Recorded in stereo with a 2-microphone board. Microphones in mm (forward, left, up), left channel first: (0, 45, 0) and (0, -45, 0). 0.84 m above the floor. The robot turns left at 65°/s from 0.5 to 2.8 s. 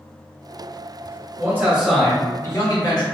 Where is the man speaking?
145° right, 1.1 m; by 3.0 s 125° left, 1.1 m.